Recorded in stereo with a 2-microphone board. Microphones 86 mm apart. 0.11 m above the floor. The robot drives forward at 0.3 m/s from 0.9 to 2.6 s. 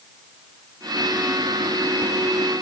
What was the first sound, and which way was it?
Only background noise.